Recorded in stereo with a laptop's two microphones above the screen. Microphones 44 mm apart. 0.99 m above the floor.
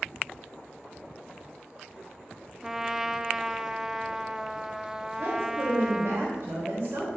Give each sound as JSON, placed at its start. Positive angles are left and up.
{"t": 2.6, "sound": "a trumpet", "side_deg": -10, "distance_m": 0.6}
{"t": 5.2, "sound": "a woman speaking", "side_deg": -75, "distance_m": 3.5}